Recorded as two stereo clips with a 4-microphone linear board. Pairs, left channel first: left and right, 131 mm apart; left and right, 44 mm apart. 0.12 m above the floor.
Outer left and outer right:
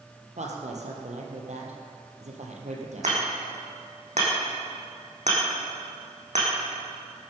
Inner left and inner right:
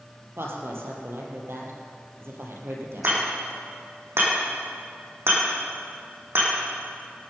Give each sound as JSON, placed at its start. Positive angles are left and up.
{"t": 0.4, "sound": "a woman speaking", "side_deg": -65, "distance_m": 3.5}
{"t": 3.0, "sound": "hammering", "side_deg": -65, "distance_m": 5.5}